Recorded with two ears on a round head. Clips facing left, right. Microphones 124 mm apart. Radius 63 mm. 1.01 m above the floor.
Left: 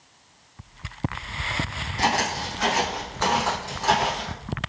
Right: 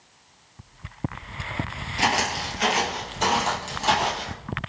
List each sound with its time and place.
2.0 s footsteps: 20° right (ahead or behind), 1.0 m; by 4.3 s 25° right (ahead or behind), 1.9 m